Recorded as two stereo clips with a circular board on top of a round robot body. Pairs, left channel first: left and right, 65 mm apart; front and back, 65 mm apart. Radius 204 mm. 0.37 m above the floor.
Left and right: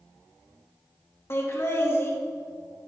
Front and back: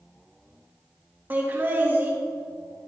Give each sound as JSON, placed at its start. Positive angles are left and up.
{"t": 1.3, "sound": "laughter", "azimuth_deg": 125, "distance_m": 2.0}